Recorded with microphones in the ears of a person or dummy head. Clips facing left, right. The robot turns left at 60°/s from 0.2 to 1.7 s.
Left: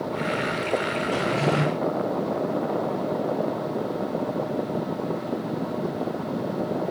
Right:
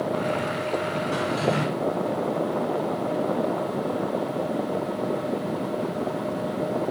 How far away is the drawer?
About 1.4 m.